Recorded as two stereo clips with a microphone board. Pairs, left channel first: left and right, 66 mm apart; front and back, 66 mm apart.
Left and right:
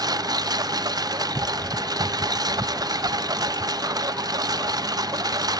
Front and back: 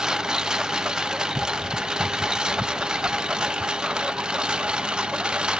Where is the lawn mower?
100° right; by 5.6 s 105° right.